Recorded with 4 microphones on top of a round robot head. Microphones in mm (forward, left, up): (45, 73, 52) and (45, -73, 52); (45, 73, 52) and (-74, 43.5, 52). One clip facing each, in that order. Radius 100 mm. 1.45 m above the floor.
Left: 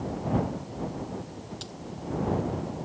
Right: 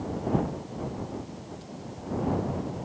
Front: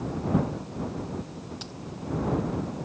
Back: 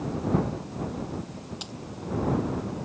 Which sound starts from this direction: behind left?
A dropped coin, at 1.6 s.